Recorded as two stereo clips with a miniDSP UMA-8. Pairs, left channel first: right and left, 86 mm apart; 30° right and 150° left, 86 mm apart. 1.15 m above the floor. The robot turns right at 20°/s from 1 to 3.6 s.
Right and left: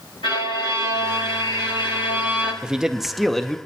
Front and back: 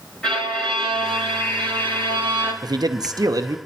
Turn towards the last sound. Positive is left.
turn(degrees=-170)